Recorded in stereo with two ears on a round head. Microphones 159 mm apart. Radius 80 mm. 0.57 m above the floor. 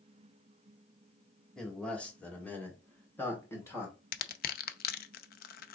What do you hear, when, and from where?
1.6 s a man speaking: 5° left (ahead or behind), 1.4 m; by 4.0 s 15° left (ahead or behind), 2.5 m
4.1 s crushing: 55° left (ahead or behind), 0.5 m